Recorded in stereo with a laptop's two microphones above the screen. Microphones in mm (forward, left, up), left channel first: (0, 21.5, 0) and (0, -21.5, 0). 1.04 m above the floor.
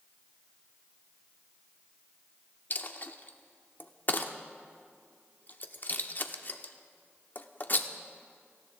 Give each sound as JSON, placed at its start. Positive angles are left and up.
{"t": 2.7, "sound": "a dropped coin", "side_deg": 45, "distance_m": 0.7}